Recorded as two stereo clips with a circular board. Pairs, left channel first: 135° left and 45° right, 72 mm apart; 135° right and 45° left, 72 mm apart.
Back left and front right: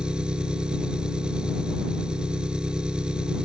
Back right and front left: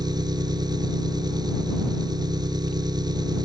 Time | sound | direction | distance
0.0 | an engine running | 35° left | ?